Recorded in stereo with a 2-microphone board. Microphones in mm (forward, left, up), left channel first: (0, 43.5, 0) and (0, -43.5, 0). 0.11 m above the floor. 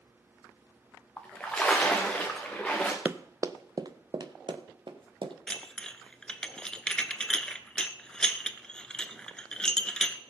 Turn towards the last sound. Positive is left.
turn(degrees=10)  # may be behind; listen again after turning